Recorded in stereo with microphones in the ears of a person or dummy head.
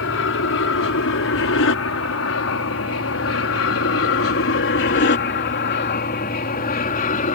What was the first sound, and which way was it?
An aircraft, 65° left (ahead or behind).